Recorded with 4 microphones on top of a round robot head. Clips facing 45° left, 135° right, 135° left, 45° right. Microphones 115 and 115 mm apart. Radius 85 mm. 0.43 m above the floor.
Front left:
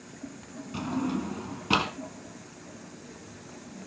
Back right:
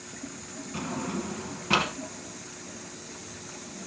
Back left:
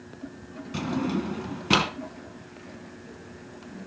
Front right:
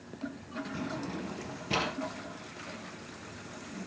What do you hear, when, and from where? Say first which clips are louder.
0.7 s a drawer: front left 3 dB, back left 12 dB; 115° left, 1.4 m